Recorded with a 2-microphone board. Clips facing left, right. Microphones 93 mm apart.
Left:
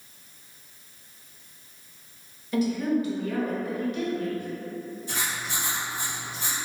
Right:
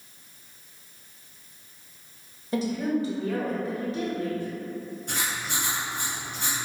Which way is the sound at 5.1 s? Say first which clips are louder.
Right 1 dB; 60° right (ahead or behind).